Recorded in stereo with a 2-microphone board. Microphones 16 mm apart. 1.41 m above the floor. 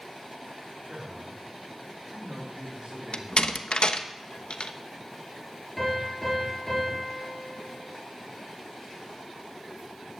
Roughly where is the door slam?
Left.